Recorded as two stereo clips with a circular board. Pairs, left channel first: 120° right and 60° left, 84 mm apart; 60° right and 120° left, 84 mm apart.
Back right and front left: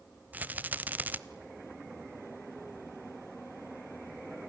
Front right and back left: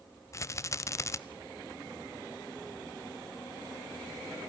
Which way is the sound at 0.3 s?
10° right.